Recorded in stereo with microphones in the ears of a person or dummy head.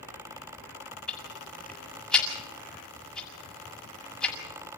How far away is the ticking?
About 6.5 m.